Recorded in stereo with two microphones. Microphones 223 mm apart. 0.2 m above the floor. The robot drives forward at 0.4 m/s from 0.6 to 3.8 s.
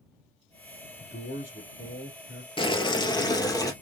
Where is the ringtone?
I don't hear a ringtone.